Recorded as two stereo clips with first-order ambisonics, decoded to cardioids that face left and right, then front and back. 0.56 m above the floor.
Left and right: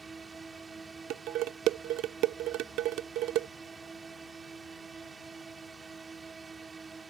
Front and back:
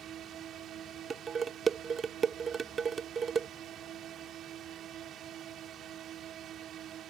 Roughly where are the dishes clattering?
Behind right.